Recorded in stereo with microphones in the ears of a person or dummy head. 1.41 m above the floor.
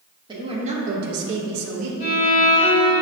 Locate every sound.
0.3 s a woman speaking: 20° right (ahead or behind), 1.0 m; by 1.9 s 75° right (ahead or behind), 0.9 m
2.0 s a violin: 20° left (ahead or behind), 1.1 m